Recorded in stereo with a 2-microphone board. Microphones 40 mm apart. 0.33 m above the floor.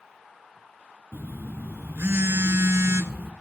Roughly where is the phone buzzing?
Right.